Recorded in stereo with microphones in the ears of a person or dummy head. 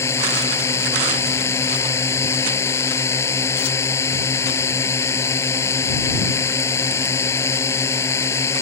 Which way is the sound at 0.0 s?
15° left (ahead or behind).